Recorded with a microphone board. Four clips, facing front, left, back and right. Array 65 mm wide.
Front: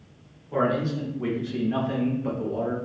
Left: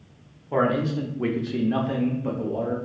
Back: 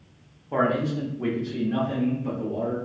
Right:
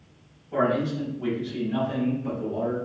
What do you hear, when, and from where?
0.5 s a man speaking: 125° left, 0.8 m; by 2.8 s 30° left, 1.1 m